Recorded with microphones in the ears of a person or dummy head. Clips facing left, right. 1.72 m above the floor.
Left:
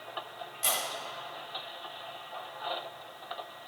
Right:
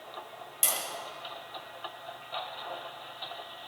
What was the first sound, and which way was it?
Tapping, 60° right (ahead or behind).